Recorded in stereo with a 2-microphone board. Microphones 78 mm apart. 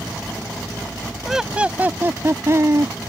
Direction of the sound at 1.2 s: 5° right (ahead or behind).